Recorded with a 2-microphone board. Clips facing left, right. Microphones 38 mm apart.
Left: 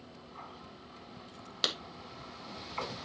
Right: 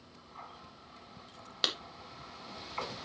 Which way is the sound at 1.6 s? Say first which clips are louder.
Even; 5° right (ahead or behind).